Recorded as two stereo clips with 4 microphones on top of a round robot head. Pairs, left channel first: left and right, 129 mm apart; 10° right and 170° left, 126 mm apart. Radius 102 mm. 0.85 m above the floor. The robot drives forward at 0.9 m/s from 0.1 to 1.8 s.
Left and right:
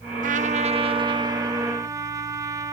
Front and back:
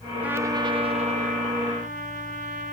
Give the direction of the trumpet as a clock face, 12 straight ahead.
4 o'clock.